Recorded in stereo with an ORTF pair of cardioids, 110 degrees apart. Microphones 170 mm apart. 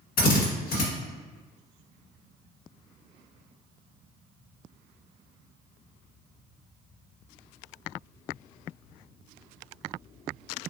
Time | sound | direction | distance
0.2 | a drill | 65° left | 1.7 m